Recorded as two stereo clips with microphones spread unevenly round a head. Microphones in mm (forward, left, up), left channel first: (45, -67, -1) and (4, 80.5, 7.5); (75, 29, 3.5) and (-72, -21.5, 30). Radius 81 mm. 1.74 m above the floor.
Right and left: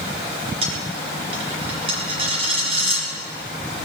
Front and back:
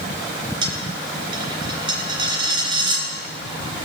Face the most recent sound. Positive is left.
turn(degrees=155)